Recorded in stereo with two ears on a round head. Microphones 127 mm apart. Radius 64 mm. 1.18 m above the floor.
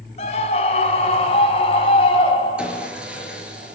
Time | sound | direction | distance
0.2 | a scream | 45° left (ahead or behind) | 4.5 m
2.6 | sawing | 5° right (ahead or behind) | 5.5 m